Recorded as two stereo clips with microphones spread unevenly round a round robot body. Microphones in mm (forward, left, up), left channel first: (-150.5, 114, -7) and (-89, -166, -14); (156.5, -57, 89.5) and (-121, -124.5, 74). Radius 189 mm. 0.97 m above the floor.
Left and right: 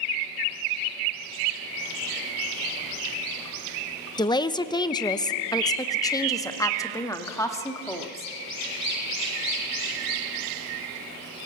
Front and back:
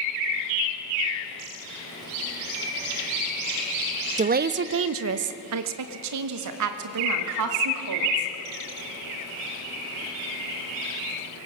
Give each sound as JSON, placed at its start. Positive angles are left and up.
{"t": 4.2, "sound": "a woman speaking", "azimuth_deg": 165, "distance_m": 0.6}